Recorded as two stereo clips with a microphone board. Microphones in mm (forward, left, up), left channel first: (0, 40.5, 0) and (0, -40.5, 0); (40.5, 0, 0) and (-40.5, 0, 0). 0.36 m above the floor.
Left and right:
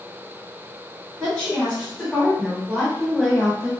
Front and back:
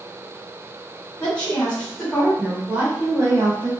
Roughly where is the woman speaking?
Ahead.